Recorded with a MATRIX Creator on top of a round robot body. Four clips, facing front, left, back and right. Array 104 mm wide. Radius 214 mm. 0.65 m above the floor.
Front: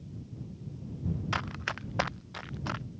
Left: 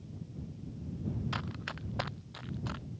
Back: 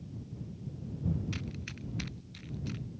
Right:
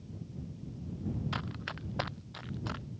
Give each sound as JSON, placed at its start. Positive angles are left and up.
{"t": 1.3, "sound": "running footsteps", "azimuth_deg": 5}